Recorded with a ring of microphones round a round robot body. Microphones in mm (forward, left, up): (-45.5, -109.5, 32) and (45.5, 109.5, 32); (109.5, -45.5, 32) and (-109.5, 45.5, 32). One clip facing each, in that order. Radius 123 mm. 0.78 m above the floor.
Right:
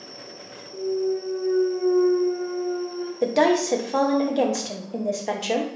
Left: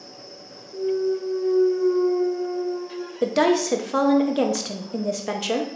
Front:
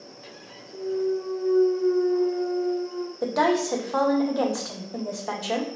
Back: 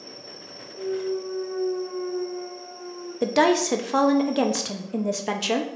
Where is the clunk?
10° right, 0.9 m.